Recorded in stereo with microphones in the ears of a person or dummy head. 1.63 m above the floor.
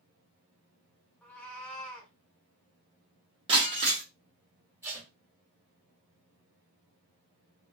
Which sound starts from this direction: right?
Breaking glass, at 3.5 s.